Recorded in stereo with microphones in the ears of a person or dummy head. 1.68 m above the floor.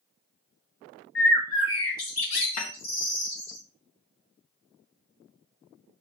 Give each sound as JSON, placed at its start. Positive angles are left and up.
{"t": 1.1, "sound": "a bird", "side_deg": 70, "distance_m": 2.5}
{"t": 2.6, "sound": "a snare drum", "side_deg": 90, "distance_m": 2.5}